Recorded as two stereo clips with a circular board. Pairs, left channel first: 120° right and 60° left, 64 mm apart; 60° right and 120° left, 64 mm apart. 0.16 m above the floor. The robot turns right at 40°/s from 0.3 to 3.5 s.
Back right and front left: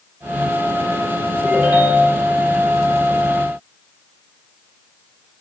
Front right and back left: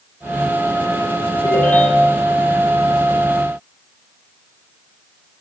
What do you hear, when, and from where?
1.4 s a ringtone: 10° right, 4 m; by 2.2 s 25° left, 4 m